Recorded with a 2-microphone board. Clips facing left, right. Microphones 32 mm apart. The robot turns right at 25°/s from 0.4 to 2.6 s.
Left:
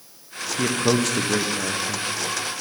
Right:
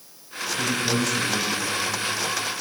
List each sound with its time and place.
0.6 s a man speaking: 55° left, 0.8 m; by 2.1 s 90° left, 0.8 m